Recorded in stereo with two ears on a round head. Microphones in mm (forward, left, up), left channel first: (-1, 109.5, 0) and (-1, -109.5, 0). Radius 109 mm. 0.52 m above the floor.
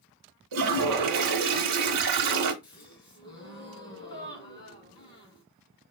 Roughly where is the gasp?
Centre.